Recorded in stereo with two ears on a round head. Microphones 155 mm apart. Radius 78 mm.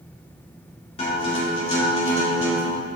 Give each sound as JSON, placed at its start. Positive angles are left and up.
{"t": 1.0, "sound": "a guitar", "side_deg": 35, "distance_m": 2.0}